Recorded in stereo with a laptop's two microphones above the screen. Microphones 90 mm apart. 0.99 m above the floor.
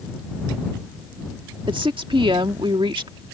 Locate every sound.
1.7 s a woman speaking: 75° right (ahead or behind)